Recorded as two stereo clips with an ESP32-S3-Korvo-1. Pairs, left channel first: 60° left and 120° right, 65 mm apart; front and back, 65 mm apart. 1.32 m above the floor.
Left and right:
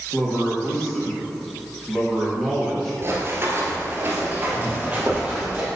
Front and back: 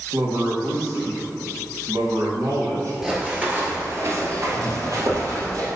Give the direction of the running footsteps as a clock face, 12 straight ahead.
4 o'clock.